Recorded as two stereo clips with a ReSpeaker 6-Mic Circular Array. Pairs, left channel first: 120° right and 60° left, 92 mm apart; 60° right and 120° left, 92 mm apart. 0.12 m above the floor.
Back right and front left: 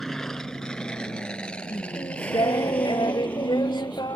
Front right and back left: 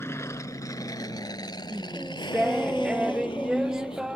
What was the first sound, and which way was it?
An aircraft, 35° right.